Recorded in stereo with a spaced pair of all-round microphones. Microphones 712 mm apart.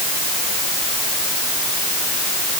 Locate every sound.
Only background noise.